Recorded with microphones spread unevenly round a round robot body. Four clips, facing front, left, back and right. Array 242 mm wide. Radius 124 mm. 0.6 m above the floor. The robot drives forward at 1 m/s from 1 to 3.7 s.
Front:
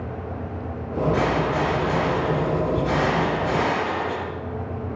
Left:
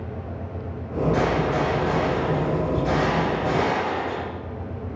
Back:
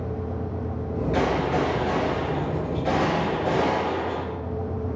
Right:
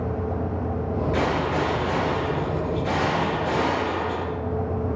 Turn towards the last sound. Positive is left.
turn(degrees=170)